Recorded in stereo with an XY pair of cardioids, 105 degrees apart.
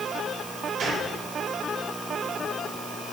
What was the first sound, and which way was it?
A gunshot, 60° right.